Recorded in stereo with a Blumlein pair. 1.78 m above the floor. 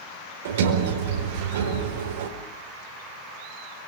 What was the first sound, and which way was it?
A sliding door, 55° right.